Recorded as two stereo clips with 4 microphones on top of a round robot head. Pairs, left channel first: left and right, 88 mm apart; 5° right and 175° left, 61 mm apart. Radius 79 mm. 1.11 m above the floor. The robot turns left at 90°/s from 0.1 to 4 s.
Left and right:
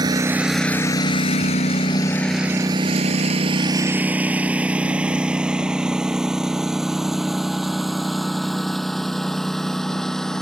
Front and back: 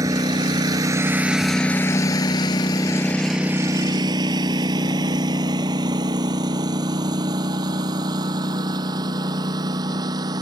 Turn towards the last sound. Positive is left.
turn(degrees=175)